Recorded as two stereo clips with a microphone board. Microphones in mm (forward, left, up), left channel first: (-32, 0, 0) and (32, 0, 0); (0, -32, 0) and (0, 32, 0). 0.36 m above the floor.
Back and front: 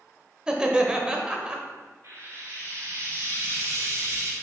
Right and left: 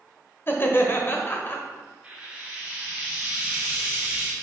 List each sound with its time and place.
0.5 s laughter: 65° right, 1.0 m
2.0 s frying: 25° left, 2.5 m